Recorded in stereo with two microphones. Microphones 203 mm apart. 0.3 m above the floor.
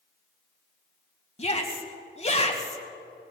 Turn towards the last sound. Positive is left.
turn(degrees=30)  # may be behind; listen again after turning